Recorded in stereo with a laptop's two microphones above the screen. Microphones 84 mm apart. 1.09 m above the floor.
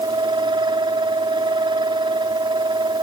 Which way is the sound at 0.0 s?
75° right (ahead or behind).